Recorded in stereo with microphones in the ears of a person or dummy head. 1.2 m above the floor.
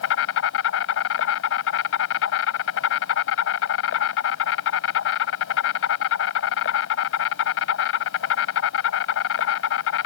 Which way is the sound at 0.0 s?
80° left.